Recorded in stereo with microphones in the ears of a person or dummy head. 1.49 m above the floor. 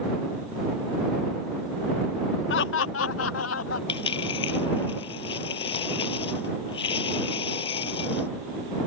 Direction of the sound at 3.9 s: 35° left (ahead or behind).